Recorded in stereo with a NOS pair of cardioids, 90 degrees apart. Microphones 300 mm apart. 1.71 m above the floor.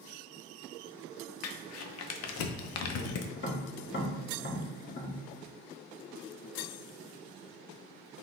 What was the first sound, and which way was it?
Crumpling, 55° left.